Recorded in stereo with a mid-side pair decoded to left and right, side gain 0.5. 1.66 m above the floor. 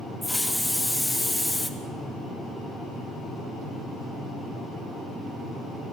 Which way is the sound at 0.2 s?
15° left.